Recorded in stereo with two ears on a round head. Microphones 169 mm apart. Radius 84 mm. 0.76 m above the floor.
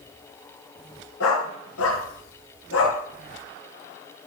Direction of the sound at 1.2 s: 85° left.